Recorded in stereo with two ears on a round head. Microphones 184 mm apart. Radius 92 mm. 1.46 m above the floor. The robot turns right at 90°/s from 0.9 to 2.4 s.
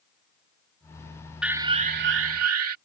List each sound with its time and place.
1.4 s an alarm: 175° right; by 2.8 s 90° right